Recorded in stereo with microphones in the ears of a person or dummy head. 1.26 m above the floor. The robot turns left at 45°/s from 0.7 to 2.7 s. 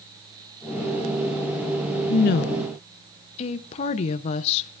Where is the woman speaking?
65° left (ahead or behind), 0.5 m; by 4.7 s 40° left (ahead or behind), 0.5 m.